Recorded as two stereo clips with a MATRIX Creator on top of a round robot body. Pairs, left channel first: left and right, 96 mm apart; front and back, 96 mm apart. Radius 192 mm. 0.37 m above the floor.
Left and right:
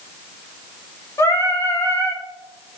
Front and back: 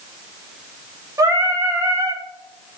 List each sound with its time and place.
1.2 s singing: 135° left, 1.1 m